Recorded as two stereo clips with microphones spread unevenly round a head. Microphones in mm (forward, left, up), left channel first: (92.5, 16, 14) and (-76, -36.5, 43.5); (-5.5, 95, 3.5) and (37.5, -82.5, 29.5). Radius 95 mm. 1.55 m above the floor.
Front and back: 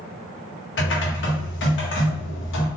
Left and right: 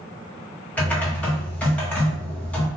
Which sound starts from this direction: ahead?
Typing on a keyboard, at 0.8 s.